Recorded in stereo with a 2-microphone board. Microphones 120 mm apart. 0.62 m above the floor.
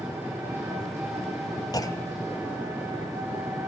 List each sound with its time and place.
0.0 s an engine running: 20° right (ahead or behind), 10 m
1.7 s a clunk: 30° left (ahead or behind), 0.9 m